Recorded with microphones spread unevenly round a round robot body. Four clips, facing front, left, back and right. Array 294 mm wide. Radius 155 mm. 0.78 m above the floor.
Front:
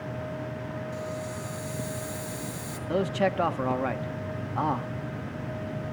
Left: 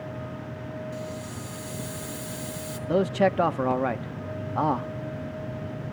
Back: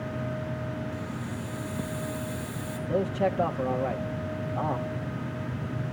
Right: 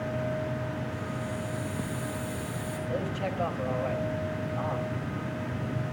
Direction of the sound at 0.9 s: 105° left.